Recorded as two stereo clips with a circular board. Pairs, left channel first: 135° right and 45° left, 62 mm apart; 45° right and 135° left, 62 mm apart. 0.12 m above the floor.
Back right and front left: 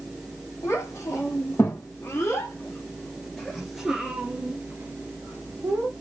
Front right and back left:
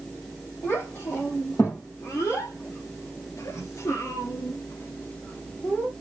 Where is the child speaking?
95° right, 2.5 m; by 5.9 s 20° left, 1.8 m.